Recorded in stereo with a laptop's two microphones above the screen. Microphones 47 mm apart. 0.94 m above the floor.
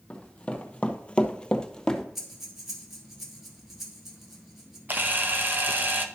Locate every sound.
0.1 s running footsteps: 25° left (ahead or behind), 1.4 m; by 2.0 s 10° left (ahead or behind), 1.2 m
2.1 s breathing: 5° right (ahead or behind), 1.4 m
4.9 s a camera shutter: 40° right (ahead or behind), 0.7 m